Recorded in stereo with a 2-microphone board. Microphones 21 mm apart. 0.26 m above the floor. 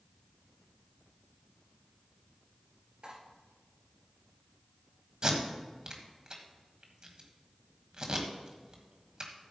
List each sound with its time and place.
3.0 s cutlery clinking: 60° right (ahead or behind), 3 m
5.2 s tape being pulled: 40° right (ahead or behind), 1.6 m